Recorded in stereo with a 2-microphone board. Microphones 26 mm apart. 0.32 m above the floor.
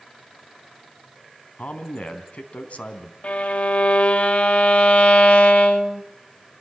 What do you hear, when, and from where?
1.6 s a man speaking: 65° left (ahead or behind), 3 m
3.2 s a violin: 55° left (ahead or behind), 1.1 m